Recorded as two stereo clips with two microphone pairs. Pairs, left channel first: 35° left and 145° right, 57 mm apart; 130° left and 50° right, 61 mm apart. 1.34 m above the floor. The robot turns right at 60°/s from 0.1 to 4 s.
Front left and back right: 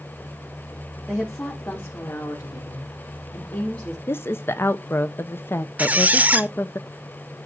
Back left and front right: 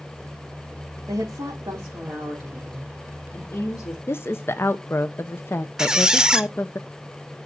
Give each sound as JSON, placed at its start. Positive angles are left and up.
{"t": 1.1, "sound": "a woman speaking", "azimuth_deg": -60, "distance_m": 3.5}
{"t": 4.1, "sound": "a woman speaking", "azimuth_deg": 80, "distance_m": 0.8}
{"t": 5.8, "sound": "a squeak", "azimuth_deg": -115, "distance_m": 0.7}